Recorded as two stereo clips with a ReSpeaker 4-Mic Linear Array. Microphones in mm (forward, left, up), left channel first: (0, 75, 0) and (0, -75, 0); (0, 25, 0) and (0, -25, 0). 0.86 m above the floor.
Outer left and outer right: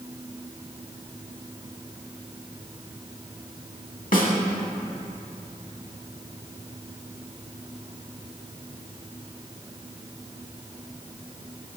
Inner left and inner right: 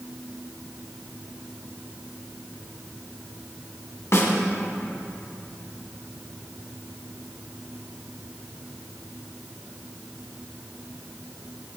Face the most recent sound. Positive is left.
turn(degrees=65)  # may be behind; listen again after turning